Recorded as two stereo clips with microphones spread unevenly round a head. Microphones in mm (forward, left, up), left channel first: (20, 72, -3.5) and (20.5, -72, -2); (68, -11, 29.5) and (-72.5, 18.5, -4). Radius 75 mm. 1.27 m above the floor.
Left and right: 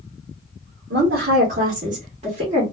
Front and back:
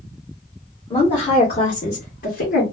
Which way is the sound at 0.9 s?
80° right.